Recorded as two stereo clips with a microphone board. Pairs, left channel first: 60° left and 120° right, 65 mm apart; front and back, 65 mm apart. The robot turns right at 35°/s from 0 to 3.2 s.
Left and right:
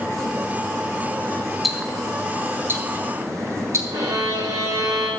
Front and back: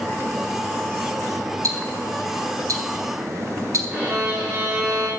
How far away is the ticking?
About 1.8 m.